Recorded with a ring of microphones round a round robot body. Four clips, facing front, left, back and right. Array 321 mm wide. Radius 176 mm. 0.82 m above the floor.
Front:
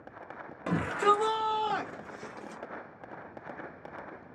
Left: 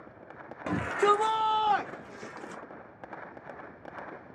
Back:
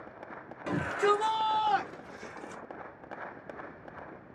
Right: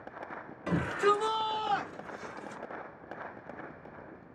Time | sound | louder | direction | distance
0.7 | a shout | left 2 dB, front 1 dB | 65° left | 1.7 m